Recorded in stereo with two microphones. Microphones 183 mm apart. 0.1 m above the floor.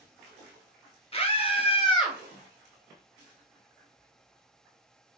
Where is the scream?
35° left (ahead or behind), 1.6 m; by 2.2 s 25° left (ahead or behind), 1.5 m.